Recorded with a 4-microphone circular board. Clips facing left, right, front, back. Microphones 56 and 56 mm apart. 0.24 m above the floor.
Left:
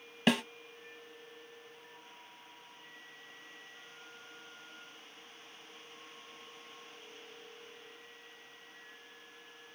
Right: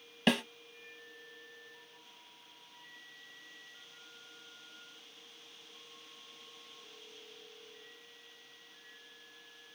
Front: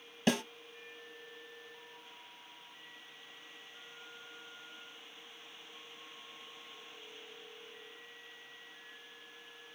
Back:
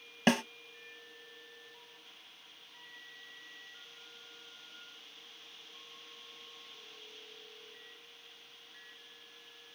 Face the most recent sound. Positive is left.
turn(degrees=175)